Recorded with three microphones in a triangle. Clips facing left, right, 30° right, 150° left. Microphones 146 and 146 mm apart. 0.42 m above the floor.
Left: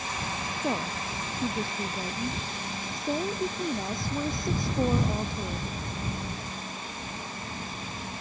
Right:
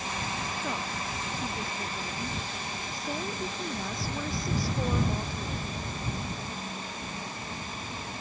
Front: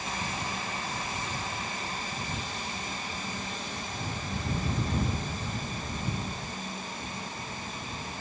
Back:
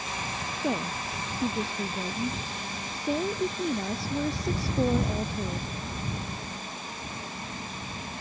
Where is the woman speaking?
150° left; by 5.7 s 160° left.